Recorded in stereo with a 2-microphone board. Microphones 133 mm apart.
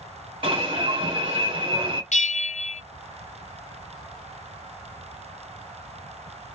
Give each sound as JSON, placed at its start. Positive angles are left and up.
{"t": 0.4, "sound": "an alarm", "side_deg": -45, "distance_m": 2.0}
{"t": 2.1, "sound": "a bell", "side_deg": 60, "distance_m": 0.7}